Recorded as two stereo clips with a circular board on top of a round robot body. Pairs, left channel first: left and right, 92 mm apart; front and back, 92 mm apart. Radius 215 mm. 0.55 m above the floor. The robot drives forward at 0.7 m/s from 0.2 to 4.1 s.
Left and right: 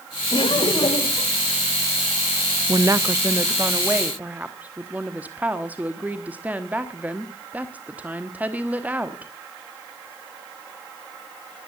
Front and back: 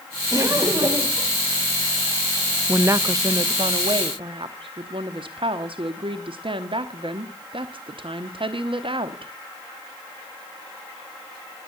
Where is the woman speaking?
120° right, 0.8 m; by 9.3 s 165° right, 1.4 m.